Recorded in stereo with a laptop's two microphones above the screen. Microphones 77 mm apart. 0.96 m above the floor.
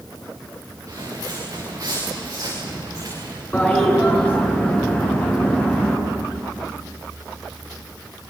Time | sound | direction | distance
0.9 | footsteps | 40° right (ahead or behind) | 6.5 m
3.5 | a toilet flushing | 20° left (ahead or behind) | 7 m